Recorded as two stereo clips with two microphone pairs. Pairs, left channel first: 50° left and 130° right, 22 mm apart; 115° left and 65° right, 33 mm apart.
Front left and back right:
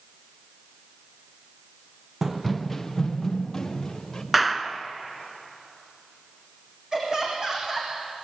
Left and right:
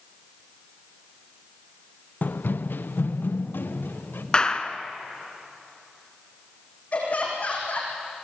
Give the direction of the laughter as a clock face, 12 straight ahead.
7 o'clock.